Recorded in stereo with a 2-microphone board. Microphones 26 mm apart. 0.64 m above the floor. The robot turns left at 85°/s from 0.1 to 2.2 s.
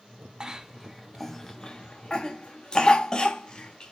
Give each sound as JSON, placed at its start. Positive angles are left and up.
{"t": 0.4, "sound": "a cough", "side_deg": -25, "distance_m": 0.6}